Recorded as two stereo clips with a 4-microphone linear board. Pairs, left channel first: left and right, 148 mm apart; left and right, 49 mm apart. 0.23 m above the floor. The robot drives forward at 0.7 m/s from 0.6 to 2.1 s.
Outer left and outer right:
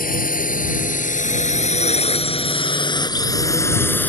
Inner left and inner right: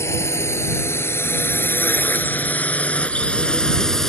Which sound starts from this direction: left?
A drone, at 0.0 s.